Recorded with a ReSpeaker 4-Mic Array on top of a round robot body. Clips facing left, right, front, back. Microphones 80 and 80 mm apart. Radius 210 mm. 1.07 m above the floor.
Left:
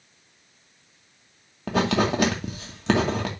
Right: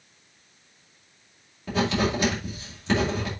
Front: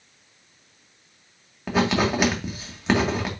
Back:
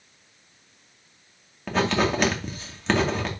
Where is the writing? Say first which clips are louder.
Left 2 dB, front 1 dB; 80° left, 2.5 m.